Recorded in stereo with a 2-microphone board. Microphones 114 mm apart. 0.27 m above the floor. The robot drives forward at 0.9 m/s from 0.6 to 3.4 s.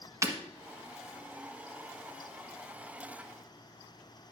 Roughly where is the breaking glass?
Right.